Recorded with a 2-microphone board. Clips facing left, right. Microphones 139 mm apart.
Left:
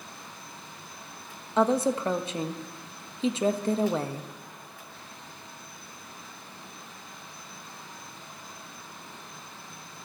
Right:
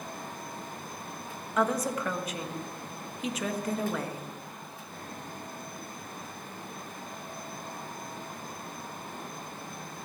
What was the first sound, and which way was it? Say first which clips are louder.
A woman speaking: left 5 dB; 30° left (ahead or behind).